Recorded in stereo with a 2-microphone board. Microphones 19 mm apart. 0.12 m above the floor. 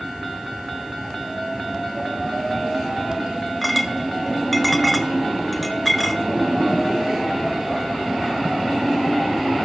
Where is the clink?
Centre (ahead or behind), 1.2 m.